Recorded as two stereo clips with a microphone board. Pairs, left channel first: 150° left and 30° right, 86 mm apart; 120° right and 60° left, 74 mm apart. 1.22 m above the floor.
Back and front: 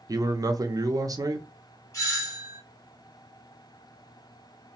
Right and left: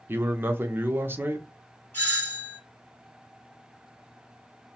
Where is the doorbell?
170° right, 1.5 m.